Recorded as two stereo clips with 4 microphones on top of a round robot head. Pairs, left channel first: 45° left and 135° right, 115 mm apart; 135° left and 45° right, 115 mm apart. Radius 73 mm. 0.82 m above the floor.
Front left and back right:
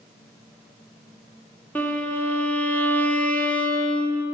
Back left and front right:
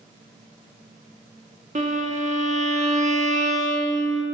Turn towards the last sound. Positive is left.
turn(degrees=-30)